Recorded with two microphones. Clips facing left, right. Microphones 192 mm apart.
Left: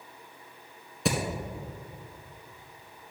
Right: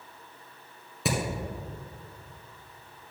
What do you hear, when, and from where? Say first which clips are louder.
1.1 s hammering: left 1 dB; 5° right (ahead or behind), 1.9 m